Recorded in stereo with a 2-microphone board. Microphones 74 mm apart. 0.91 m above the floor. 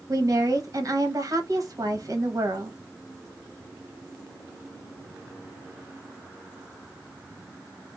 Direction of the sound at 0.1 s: 50° right (ahead or behind).